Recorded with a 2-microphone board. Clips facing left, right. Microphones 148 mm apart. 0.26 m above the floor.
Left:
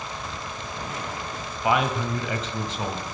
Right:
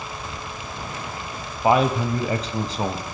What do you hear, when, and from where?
1.6 s a man speaking: 35° right (ahead or behind), 1.2 m